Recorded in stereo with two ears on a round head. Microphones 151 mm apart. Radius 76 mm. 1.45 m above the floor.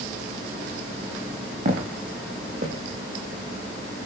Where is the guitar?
I don't hear a guitar.